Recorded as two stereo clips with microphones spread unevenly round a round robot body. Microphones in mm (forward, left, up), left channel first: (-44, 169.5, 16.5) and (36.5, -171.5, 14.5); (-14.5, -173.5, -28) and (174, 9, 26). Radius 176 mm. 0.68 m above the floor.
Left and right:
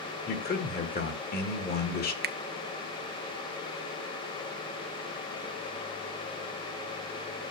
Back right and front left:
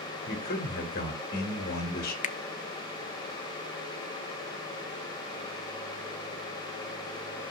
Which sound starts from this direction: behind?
A man speaking, at 0.3 s.